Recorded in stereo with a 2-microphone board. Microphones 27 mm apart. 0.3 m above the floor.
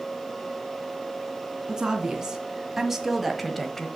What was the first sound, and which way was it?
A woman speaking, 25° right (ahead or behind).